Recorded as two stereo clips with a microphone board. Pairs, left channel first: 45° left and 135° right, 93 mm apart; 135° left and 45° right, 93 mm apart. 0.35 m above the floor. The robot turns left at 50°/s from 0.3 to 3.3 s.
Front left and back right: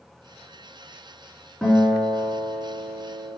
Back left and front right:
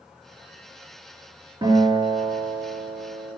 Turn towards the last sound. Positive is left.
turn(degrees=-135)